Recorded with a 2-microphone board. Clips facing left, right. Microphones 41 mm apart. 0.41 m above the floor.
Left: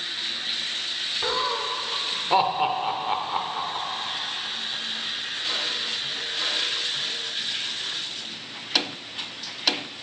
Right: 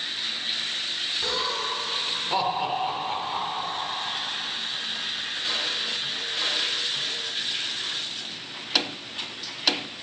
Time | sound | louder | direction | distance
1.2 | laughter | left 4 dB | 25° left (ahead or behind) | 0.9 m